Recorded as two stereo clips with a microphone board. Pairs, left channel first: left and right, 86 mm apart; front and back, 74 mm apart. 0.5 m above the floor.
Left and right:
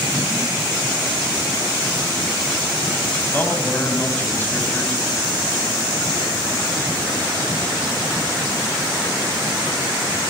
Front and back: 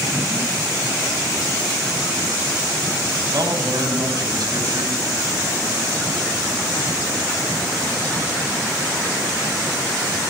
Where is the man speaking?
155° left, 3 m.